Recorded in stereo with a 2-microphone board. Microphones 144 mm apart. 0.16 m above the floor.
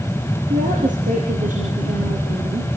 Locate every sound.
0.5 s a woman speaking: 70° right (ahead or behind), 5 m